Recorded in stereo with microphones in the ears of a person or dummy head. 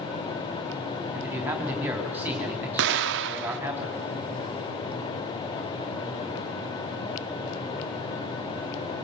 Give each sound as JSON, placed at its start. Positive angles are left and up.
{"t": 1.1, "sound": "a man speaking", "side_deg": -10, "distance_m": 3.5}
{"t": 2.8, "sound": "an explosion", "side_deg": -65, "distance_m": 0.6}